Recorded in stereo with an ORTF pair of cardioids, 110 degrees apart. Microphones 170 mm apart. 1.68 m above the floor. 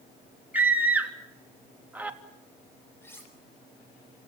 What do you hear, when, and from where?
0.5 s a scream: 10° right, 3 m
3.0 s cutlery clinking: 15° left, 6.5 m